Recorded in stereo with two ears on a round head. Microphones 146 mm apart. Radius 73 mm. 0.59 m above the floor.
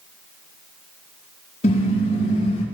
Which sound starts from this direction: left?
A car horn, at 1.6 s.